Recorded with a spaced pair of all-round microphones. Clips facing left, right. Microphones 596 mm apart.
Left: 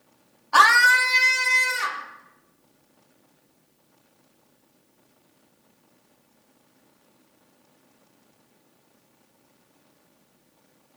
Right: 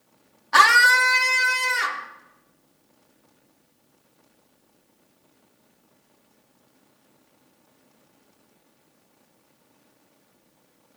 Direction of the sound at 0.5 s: 45° right (ahead or behind).